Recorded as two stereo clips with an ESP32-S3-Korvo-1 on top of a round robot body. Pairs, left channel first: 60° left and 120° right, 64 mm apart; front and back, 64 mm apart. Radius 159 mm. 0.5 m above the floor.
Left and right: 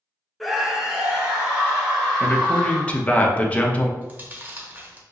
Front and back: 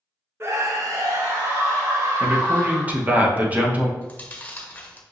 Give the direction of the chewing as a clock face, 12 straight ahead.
2 o'clock.